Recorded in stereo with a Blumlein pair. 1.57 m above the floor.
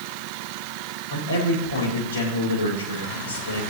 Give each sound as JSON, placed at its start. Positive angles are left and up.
{"t": 1.1, "sound": "a man speaking", "azimuth_deg": 65, "distance_m": 6.0}